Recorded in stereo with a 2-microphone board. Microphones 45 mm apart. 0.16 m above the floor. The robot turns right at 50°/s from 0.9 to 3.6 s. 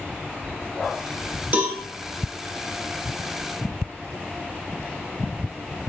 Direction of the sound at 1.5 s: 40° right (ahead or behind).